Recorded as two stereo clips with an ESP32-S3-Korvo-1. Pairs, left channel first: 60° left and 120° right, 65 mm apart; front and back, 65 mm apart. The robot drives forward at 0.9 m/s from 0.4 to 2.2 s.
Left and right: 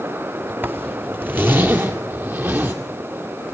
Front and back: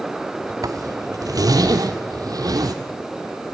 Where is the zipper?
175° right, 1.9 m; by 2.7 s straight behind, 3 m.